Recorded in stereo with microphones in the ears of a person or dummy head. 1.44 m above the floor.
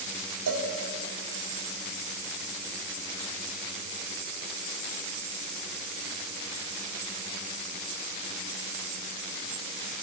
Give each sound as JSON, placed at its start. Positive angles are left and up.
{"t": 0.5, "sound": "a cowbell", "side_deg": -80, "distance_m": 3.0}